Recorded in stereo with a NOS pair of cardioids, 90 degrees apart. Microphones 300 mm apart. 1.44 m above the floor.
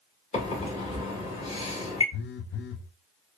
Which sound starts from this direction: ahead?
A microwave, at 0.3 s.